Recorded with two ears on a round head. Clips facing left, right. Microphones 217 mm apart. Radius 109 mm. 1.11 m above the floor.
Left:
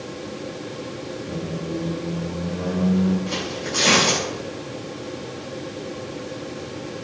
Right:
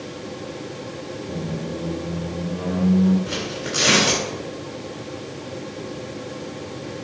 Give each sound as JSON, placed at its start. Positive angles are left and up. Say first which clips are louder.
{"t": 1.3, "sound": "a squeak", "louder": "even", "side_deg": 20, "distance_m": 2.5}
{"t": 3.3, "sound": "tearing paper", "louder": "even", "side_deg": -5, "distance_m": 4.0}